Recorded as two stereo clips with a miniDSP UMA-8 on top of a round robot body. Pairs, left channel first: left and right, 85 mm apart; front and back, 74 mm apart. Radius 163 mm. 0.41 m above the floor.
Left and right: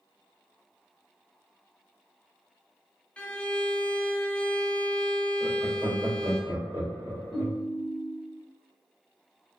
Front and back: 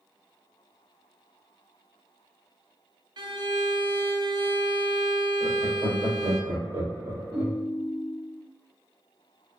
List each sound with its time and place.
3.2 s a violin: 165° left, 0.5 m
5.4 s laughter: 160° right, 1.9 m
7.3 s a ringtone: straight behind, 1.3 m